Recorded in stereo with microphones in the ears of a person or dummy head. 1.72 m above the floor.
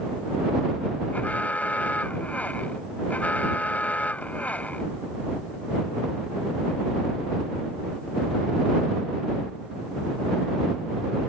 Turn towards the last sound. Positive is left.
turn(degrees=15)  # may be behind; listen again after turning